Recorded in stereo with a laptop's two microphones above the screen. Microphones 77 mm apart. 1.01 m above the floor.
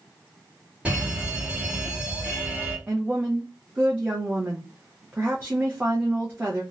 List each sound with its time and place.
0.8 s a fire alarm: 15° right (ahead or behind), 1.7 m
2.9 s a woman speaking: 20° right (ahead or behind), 0.5 m